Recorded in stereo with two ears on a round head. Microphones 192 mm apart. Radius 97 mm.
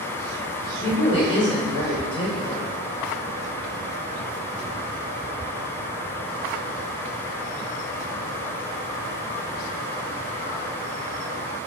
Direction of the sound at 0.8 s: 25° left (ahead or behind).